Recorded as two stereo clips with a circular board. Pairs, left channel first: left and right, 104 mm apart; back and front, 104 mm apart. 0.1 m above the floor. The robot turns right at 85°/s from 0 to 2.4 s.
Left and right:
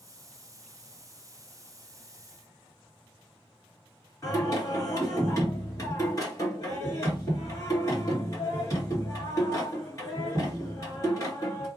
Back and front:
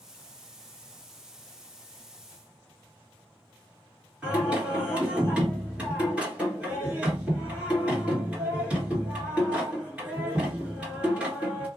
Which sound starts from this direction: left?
Singing, at 4.2 s.